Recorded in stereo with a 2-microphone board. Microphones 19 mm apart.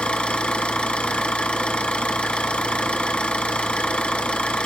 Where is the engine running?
70° left (ahead or behind), 2.5 m.